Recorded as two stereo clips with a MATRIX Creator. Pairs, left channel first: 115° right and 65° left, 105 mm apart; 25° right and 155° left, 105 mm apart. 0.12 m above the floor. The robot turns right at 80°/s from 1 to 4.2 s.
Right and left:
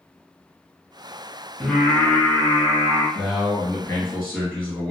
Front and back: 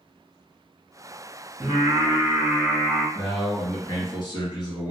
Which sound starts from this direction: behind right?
A man speaking, at 3.1 s.